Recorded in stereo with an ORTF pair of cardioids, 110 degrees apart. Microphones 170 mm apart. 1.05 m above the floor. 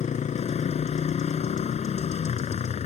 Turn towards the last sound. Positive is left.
turn(degrees=40)